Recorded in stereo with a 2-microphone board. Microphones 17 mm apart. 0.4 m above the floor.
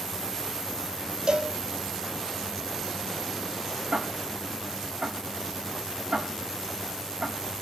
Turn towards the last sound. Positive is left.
turn(degrees=-80)